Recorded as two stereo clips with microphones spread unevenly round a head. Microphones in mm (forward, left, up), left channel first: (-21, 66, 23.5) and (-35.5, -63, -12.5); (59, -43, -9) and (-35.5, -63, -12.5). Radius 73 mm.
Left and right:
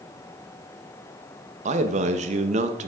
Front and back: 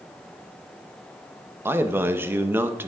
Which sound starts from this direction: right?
A man speaking, at 1.6 s.